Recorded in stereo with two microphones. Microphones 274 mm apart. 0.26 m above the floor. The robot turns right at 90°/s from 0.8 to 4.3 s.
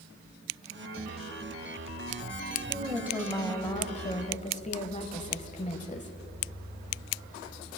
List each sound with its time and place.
2.7 s a woman speaking: 20° right (ahead or behind), 1.4 m; by 6.2 s 25° left (ahead or behind), 1.4 m